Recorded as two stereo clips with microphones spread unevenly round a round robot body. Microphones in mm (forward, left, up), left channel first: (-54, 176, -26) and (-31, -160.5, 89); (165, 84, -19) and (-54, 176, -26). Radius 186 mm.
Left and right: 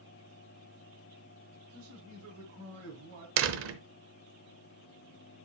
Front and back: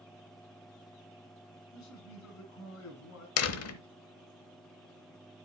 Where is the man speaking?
25° right, 3 m.